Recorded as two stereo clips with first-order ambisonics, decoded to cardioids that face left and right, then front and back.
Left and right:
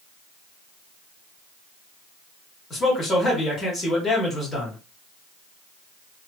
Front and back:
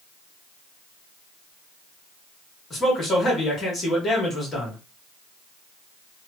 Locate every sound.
2.7 s a man speaking: 50° left, 1.2 m